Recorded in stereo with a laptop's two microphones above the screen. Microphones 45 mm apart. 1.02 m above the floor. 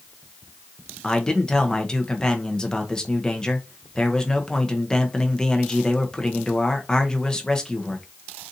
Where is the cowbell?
I don't hear a cowbell.